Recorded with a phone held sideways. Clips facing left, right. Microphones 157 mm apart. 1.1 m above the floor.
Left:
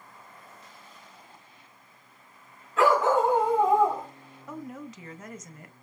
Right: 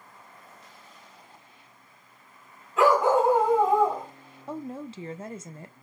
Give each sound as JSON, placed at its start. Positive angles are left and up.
{"t": 2.8, "sound": "a dog barking", "side_deg": -15, "distance_m": 2.0}
{"t": 4.5, "sound": "a woman speaking", "side_deg": -30, "distance_m": 0.6}